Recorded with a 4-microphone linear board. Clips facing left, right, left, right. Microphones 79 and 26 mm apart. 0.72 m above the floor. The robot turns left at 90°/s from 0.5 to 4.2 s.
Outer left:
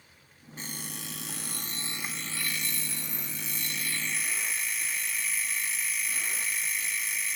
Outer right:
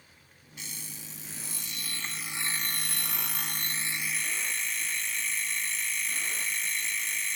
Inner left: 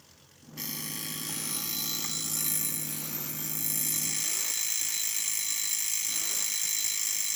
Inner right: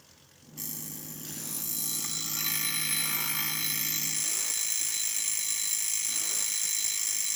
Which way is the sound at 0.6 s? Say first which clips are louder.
Outer left 6 dB, inner left 5 dB; 140° left.